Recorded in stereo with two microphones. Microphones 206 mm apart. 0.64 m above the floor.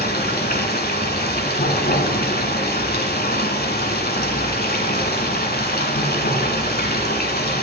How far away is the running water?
About 1.2 m.